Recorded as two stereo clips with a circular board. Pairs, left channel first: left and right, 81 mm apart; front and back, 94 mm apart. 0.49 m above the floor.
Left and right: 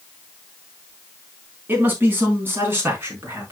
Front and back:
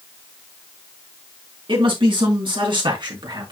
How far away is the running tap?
No running tap in this recording.